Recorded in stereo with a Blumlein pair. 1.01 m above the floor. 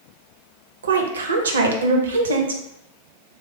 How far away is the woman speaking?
About 0.6 m.